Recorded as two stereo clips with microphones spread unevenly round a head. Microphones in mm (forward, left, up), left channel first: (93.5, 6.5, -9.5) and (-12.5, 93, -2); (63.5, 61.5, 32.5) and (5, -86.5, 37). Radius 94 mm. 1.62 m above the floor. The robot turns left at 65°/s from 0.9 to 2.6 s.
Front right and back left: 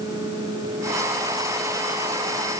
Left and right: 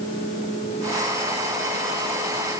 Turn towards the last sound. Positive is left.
No sound to turn to.